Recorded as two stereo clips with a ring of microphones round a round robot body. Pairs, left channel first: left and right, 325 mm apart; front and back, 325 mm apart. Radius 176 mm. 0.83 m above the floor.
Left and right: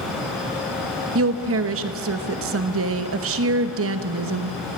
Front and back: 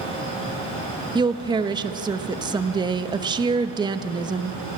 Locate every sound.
1.1 s a woman speaking: 110° right, 1.0 m